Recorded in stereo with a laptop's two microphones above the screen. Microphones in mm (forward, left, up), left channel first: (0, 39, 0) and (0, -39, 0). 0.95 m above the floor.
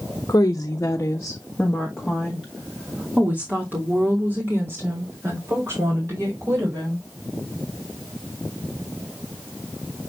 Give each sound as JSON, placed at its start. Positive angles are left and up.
{"t": 0.3, "sound": "a woman speaking", "side_deg": 45, "distance_m": 1.5}